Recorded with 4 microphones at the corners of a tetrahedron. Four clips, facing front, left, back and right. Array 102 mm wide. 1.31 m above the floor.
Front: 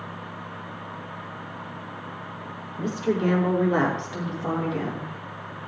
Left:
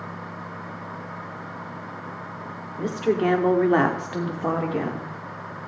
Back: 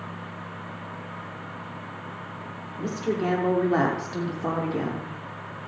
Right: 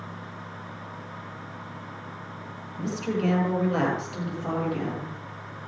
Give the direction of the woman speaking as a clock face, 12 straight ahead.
9 o'clock.